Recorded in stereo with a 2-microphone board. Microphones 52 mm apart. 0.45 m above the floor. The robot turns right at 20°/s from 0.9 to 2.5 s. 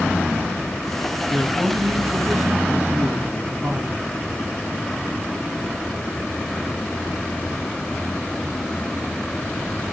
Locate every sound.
1.3 s a man speaking: 5° right (ahead or behind), 5 m; by 4.0 s 30° right (ahead or behind), 5 m